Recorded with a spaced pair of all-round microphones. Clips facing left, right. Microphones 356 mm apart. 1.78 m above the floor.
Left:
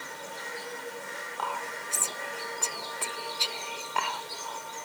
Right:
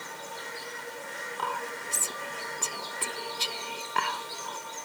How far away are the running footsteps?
No running footsteps in this recording.